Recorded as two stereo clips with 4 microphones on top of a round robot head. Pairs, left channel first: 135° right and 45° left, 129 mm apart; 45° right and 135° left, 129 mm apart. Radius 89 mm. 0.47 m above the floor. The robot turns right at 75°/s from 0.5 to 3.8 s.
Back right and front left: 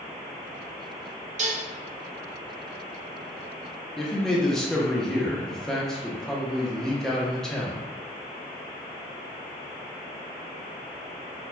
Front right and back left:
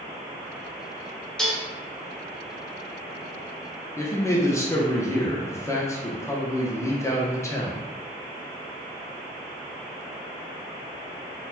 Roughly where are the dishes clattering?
Ahead left.